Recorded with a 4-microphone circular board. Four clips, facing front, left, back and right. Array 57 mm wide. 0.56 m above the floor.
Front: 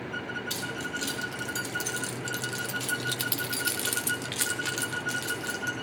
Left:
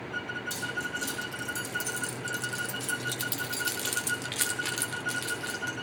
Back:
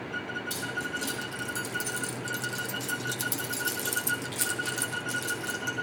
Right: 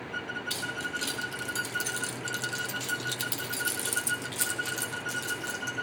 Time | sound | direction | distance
0.5 | keys jangling | 65° right | 2 m